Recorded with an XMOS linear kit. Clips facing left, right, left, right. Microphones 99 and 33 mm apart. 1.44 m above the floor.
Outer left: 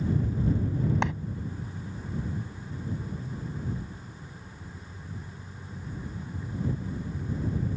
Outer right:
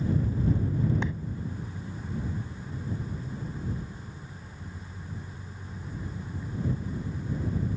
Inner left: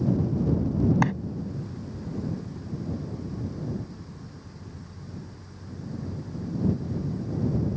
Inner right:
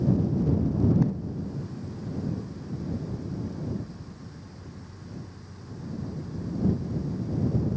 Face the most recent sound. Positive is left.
turn(degrees=90)